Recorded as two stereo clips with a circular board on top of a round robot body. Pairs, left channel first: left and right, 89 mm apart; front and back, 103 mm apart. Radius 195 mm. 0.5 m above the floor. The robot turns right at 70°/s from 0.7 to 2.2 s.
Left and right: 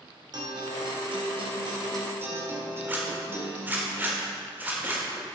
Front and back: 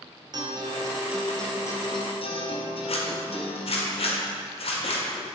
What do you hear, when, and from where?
0.3 s a guitar: 130° right, 1.4 m; by 3.9 s 25° right, 1.4 m
2.9 s a zipper: 20° right, 1.4 m